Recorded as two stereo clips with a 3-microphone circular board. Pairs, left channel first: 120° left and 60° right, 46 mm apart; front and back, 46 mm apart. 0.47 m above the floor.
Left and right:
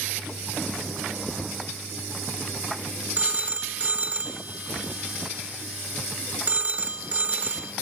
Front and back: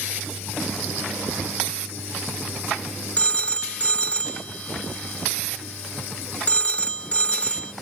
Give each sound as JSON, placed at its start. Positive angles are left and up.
{"t": 3.2, "sound": "a phone ringing", "azimuth_deg": -40, "distance_m": 0.8}